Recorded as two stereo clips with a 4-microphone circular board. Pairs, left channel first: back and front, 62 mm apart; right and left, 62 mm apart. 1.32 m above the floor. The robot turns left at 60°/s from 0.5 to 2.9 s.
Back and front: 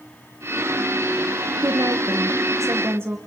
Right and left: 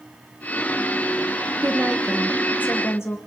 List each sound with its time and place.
1.6 s a woman speaking: 30° left, 1.1 m; by 3.2 s 45° right, 1.1 m